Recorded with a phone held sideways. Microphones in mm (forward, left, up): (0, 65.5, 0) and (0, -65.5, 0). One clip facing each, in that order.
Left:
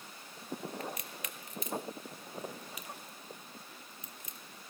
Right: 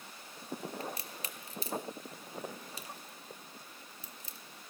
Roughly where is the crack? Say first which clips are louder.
Even; right.